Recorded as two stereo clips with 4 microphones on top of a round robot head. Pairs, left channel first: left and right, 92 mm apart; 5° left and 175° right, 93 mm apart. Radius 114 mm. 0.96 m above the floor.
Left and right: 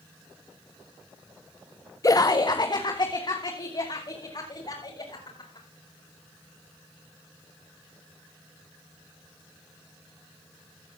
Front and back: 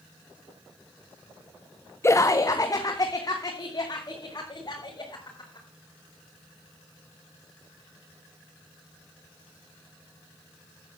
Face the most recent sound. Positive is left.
turn(degrees=50)